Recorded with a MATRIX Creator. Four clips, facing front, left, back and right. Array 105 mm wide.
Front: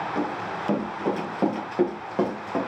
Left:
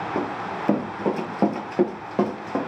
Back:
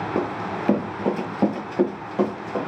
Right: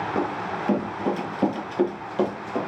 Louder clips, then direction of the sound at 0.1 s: Even, back 3 dB; 165° left.